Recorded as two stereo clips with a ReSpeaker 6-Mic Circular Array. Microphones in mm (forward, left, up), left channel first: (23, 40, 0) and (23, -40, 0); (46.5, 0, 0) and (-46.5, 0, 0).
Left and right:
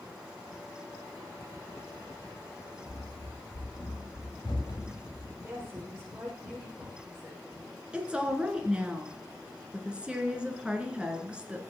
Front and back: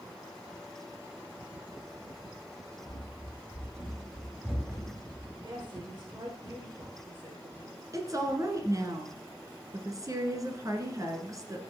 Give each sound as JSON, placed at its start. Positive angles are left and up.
{"t": 2.9, "sound": "running footsteps", "azimuth_deg": 105, "distance_m": 5.0}
{"t": 5.4, "sound": "a woman speaking", "azimuth_deg": -145, "distance_m": 4.0}
{"t": 7.9, "sound": "a woman speaking", "azimuth_deg": -160, "distance_m": 1.9}